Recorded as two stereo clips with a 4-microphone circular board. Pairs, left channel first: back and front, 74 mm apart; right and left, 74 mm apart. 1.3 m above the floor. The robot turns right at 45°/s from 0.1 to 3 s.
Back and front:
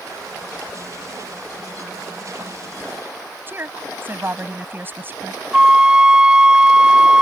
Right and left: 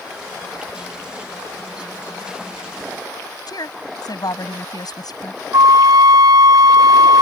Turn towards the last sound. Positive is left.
turn(degrees=75)